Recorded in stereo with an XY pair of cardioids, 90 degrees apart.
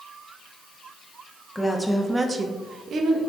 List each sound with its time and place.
1.6 s a woman speaking: 15° left, 0.7 m; by 3.2 s 75° right, 0.9 m